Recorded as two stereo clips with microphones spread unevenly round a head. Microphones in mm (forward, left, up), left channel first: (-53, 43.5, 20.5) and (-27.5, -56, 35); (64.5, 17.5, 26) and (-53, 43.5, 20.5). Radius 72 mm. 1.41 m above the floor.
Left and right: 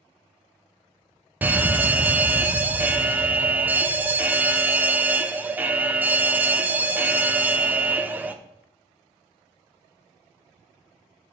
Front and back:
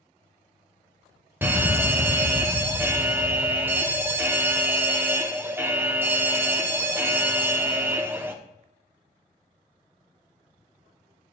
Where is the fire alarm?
145° right, 0.8 m.